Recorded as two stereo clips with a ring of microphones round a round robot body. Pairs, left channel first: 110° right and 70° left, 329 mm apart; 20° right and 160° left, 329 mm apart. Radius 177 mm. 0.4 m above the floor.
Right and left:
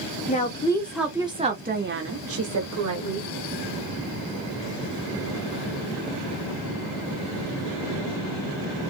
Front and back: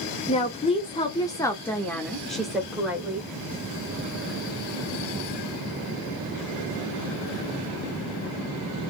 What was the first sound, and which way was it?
A woman speaking, 75° right.